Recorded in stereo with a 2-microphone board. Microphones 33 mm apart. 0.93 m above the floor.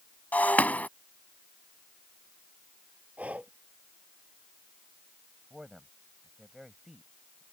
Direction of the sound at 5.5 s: 15° right (ahead or behind).